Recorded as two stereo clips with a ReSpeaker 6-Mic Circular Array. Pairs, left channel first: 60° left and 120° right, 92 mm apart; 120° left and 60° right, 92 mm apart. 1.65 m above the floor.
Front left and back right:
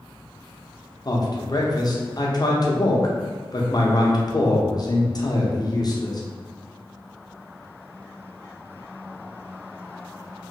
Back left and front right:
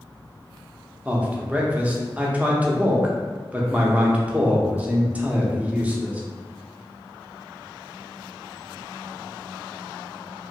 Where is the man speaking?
15° left, 0.6 m.